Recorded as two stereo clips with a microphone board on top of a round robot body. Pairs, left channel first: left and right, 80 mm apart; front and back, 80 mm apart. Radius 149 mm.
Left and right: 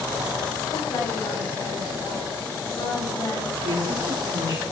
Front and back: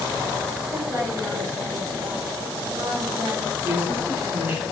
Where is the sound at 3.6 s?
110° right, 3.5 m.